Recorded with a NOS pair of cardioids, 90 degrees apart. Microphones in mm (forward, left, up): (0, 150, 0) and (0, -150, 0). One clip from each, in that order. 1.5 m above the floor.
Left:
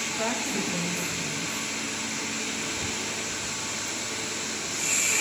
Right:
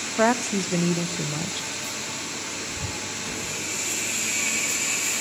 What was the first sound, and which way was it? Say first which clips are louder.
A woman speaking: right 10 dB; 60° right.